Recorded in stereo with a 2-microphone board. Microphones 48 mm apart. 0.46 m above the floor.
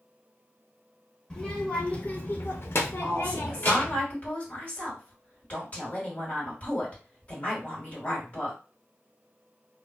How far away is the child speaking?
About 0.9 m.